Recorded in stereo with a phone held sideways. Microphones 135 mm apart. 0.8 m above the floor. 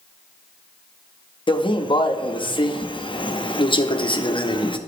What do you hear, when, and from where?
1.5 s a man speaking: 35° left (ahead or behind), 0.8 m